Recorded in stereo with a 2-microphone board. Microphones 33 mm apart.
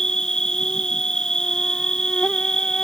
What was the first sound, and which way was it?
An insect, 25° left (ahead or behind).